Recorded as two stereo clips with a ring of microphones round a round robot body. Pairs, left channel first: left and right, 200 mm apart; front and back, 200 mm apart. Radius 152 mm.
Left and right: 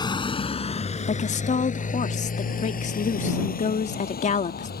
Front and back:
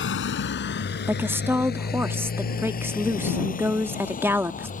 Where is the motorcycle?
20° left; by 4.8 s 50° left.